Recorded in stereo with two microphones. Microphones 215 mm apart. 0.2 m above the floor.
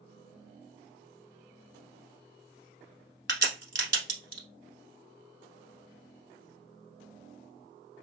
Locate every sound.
3.3 s a crack: 60° right (ahead or behind), 1.0 m